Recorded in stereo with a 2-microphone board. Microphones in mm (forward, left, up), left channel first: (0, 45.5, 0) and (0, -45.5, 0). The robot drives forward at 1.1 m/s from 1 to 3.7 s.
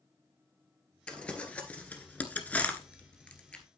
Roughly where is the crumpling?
Centre.